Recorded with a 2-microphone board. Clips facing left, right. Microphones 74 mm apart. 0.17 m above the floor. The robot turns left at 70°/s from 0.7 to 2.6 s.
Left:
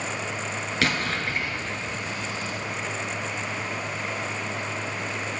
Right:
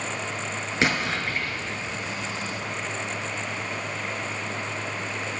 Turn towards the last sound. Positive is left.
turn(degrees=85)